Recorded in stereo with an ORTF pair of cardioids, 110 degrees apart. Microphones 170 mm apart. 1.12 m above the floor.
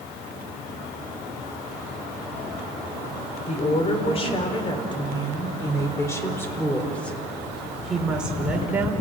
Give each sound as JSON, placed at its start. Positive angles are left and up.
{"t": 3.5, "sound": "a woman speaking", "azimuth_deg": 40, "distance_m": 4.0}